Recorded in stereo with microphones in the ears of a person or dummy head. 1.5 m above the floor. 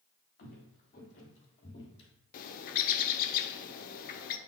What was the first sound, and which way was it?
Footsteps, 50° left (ahead or behind).